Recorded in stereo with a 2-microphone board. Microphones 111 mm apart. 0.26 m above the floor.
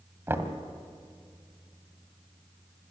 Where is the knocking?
20° right (ahead or behind), 1.4 m.